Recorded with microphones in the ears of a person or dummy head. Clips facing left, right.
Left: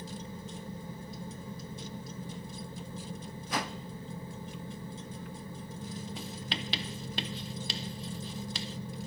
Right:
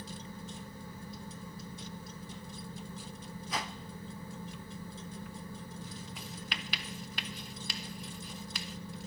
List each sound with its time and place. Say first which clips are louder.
3.5 s a whoosh: left 4 dB; 55° left (ahead or behind), 0.6 m
6.2 s writing: left 5 dB; 30° left (ahead or behind), 0.8 m